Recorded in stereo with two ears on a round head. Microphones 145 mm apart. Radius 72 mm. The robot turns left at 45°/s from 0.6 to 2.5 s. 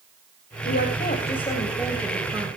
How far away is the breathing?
No breathing in this recording.